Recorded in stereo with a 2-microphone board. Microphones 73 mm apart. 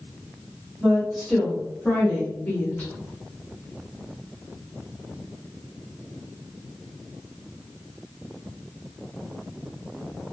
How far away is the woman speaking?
About 1.4 m.